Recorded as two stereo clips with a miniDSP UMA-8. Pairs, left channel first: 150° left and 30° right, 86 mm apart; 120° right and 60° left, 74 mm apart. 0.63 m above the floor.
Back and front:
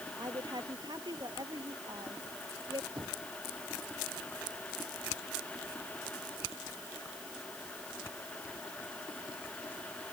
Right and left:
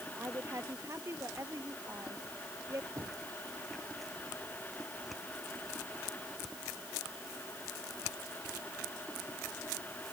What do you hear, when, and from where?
0.2 s a woman speaking: 10° left
3.0 s knocking: 20° left